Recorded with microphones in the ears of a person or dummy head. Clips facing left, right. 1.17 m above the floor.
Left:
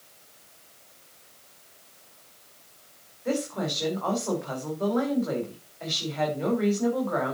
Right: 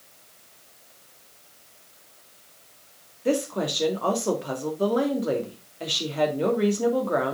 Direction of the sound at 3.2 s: 45° right (ahead or behind).